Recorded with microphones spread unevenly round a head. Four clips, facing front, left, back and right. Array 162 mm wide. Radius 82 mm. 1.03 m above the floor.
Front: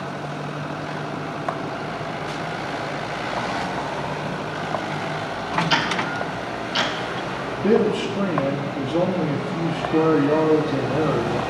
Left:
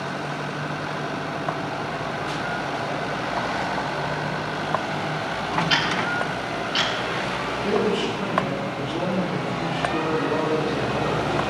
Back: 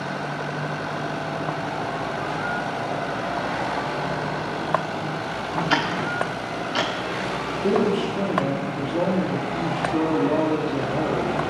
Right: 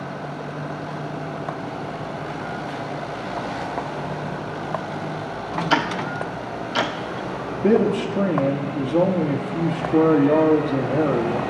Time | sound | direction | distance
5.7 | ticking | 110° right | 1.3 m
7.5 | a man speaking | 80° right | 2.5 m